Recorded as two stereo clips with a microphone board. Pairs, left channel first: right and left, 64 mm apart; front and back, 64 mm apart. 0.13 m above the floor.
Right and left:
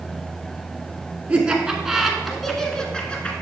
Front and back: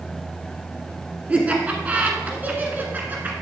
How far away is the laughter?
About 1.6 m.